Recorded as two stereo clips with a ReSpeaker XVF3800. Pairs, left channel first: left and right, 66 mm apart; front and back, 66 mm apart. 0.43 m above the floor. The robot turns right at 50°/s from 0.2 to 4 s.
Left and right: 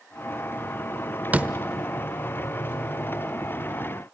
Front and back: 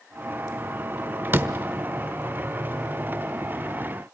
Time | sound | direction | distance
1.3 | a door slam | 140° right | 1.0 m